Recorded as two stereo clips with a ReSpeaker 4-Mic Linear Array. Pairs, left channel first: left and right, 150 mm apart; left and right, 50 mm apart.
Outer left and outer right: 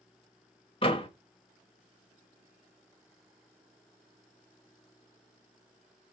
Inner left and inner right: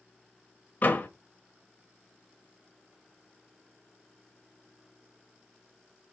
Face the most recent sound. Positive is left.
turn(degrees=35)  # may be behind; listen again after turning